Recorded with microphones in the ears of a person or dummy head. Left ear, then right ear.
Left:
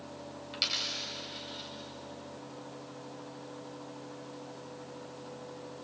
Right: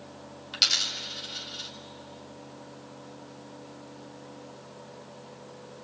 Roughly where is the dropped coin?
Right.